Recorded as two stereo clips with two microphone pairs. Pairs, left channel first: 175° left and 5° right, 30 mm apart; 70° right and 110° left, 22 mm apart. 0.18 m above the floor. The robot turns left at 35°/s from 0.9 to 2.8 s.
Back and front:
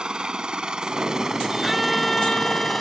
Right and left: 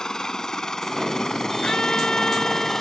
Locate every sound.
0.0 s a helicopter: 45° right; by 2.8 s 90° right
1.6 s a violin: 90° right; by 2.8 s 130° right